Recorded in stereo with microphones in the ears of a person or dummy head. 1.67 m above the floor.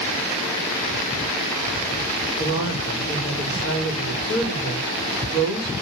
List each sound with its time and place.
2.4 s a woman speaking: 80° left, 4 m